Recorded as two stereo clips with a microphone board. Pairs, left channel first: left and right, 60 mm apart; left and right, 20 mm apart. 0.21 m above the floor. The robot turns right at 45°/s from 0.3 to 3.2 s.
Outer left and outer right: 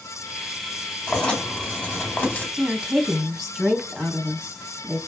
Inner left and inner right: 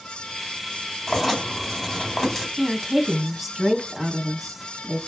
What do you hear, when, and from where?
1.1 s writing: 15° left (ahead or behind), 1.6 m; by 2.5 s 30° left (ahead or behind), 1.6 m
2.6 s a woman speaking: 15° right (ahead or behind), 1.3 m; by 5.0 s centre (ahead or behind), 1.3 m